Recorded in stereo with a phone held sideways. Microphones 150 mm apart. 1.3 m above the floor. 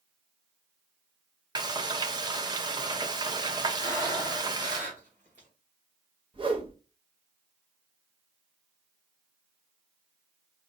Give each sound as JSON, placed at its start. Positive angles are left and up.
{"t": 1.6, "sound": "frying", "side_deg": -30, "distance_m": 0.6}
{"t": 3.8, "sound": "breathing", "side_deg": -50, "distance_m": 2.5}
{"t": 6.3, "sound": "a whoosh", "side_deg": -35, "distance_m": 0.7}